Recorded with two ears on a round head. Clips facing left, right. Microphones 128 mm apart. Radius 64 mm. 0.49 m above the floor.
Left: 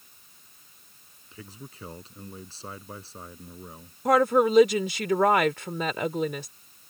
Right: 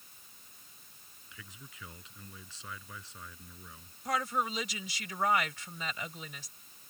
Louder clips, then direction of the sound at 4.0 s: Left 13 dB; 50° left (ahead or behind).